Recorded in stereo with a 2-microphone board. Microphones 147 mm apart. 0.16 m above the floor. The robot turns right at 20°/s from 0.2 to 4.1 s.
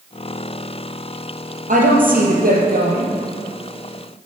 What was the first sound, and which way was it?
A woman speaking, 60° right (ahead or behind).